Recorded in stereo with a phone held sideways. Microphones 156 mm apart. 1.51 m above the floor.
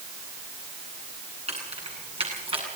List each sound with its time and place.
1.5 s keys jangling: 40° right (ahead or behind), 9.5 m; by 2.7 s 35° right (ahead or behind), 8 m